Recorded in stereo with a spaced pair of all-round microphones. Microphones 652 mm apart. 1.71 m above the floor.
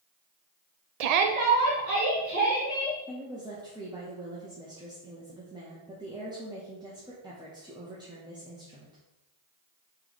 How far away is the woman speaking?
About 0.7 m.